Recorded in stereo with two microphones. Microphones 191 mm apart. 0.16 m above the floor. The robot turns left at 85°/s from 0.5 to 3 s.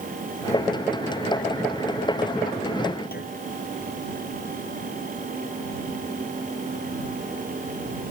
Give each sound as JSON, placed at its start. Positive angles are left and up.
{"t": 3.1, "sound": "a clunk", "side_deg": 55}